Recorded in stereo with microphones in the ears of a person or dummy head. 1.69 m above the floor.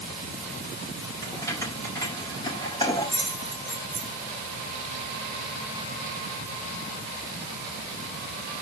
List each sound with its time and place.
1.2 s keys jangling: 15° left (ahead or behind), 5 m; by 4.1 s 30° left (ahead or behind), 5.5 m